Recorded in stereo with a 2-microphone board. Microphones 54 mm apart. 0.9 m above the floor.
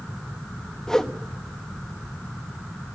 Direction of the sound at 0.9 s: 10° left (ahead or behind).